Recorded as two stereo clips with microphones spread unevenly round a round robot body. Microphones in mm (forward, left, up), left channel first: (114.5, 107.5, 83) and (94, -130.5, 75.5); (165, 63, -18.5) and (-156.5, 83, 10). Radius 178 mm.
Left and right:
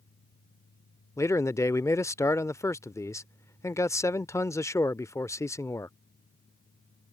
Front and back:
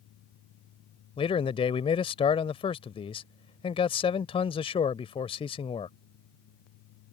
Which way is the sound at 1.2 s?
20° left.